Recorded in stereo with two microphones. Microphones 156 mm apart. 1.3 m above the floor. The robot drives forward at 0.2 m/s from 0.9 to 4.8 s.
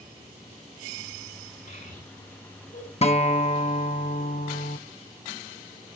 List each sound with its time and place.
1.7 s a child speaking: 70° left (ahead or behind), 8 m
3.0 s a guitar: 40° left (ahead or behind), 0.9 m; by 4.8 s 60° left (ahead or behind), 0.7 m